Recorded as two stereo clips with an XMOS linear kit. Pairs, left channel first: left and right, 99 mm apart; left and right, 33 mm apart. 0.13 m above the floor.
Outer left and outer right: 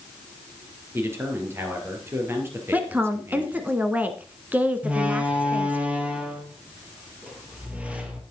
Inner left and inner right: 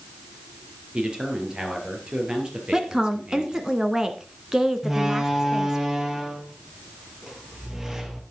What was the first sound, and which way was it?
A man speaking, 25° right (ahead or behind).